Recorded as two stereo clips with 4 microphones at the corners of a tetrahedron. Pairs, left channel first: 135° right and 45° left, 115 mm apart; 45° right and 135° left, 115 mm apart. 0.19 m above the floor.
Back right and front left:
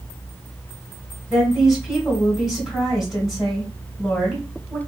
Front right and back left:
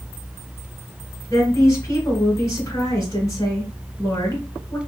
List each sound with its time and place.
1.3 s a woman speaking: 40° right, 1.3 m